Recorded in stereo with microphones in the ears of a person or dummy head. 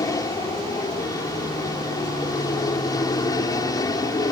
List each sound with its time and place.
0.0 s an aircraft: 15° left (ahead or behind)